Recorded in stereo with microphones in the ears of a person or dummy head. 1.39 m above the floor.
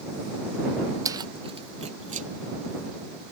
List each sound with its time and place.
1.1 s keys jangling: 20° right (ahead or behind); by 2.3 s 40° right (ahead or behind)